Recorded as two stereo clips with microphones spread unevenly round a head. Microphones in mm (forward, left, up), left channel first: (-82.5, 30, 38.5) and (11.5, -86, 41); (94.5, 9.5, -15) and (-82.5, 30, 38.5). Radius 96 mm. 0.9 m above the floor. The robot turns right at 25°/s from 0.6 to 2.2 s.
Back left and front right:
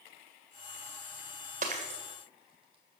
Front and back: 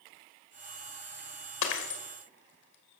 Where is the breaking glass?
5° right, 2 m; by 3.0 s 10° left, 2 m.